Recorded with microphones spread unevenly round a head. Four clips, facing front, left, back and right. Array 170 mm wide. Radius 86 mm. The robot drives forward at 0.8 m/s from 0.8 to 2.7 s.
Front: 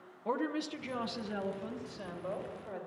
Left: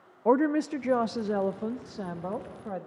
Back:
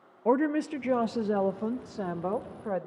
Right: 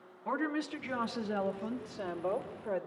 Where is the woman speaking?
125° left, 0.7 m; by 2.9 s 165° left, 2.0 m.